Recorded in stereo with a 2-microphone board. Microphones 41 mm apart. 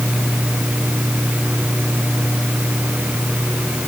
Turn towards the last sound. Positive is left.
No sound to turn to.